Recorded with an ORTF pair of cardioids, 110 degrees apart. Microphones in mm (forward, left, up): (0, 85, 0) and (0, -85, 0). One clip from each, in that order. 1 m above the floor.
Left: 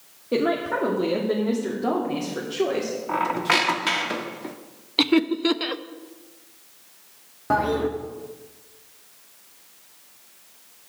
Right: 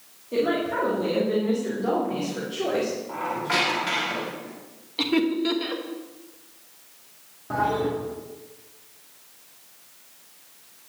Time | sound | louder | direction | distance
0.3 | a woman speaking | left 1 dB | 55° left | 2 m
3.1 | a squeak | left 7 dB | 65° left | 1.4 m
5.0 | laughter | left 3 dB | 50° left | 0.8 m
7.5 | a toilet flushing | left 2 dB | 60° left | 1.8 m